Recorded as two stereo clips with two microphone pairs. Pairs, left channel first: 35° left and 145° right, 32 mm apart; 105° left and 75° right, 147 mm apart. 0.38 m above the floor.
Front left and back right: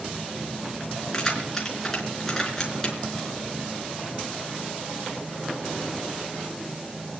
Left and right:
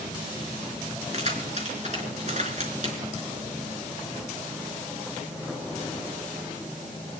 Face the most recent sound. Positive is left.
turn(degrees=-40)